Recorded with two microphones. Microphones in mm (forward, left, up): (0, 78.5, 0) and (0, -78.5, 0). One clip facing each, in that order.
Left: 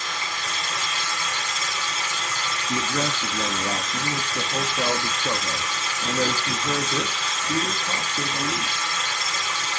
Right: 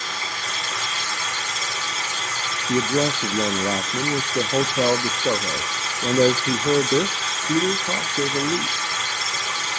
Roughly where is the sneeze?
No sneeze in this recording.